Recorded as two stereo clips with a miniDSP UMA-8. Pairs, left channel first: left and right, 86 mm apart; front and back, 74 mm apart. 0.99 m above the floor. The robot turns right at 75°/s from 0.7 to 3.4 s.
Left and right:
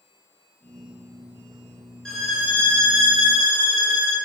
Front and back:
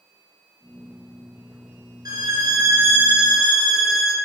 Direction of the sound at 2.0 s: 175° left.